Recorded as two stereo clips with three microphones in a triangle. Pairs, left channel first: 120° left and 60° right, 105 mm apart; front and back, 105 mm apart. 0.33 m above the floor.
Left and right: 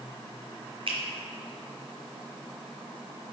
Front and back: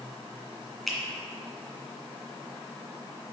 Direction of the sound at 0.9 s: 90° right.